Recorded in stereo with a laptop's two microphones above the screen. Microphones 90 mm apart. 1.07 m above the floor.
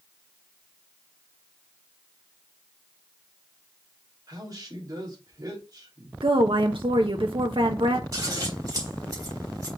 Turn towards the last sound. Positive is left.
turn(degrees=-40)  # may be behind; listen again after turning